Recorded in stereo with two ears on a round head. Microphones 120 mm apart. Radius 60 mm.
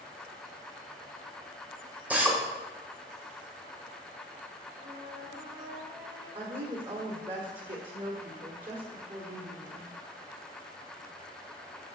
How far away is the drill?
About 1.8 m.